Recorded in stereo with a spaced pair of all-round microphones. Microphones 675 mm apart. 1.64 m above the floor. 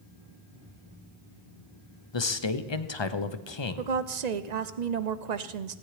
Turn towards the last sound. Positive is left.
turn(degrees=-75)  # may be behind; listen again after turning